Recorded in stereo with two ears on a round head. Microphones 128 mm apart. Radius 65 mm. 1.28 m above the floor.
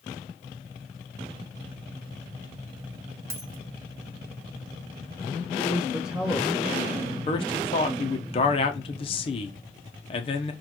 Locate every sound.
3.3 s a dropped coin: 20° right (ahead or behind), 0.6 m
5.5 s a man speaking: 5° right (ahead or behind), 1.3 m
7.3 s a man speaking: 40° left (ahead or behind), 0.8 m